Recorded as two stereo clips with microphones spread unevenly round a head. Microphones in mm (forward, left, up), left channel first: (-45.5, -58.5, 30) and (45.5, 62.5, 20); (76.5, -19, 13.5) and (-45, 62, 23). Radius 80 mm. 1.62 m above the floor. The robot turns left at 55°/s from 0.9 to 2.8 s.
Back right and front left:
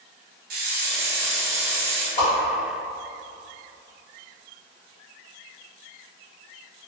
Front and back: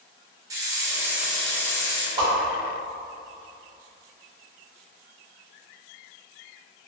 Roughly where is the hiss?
Left.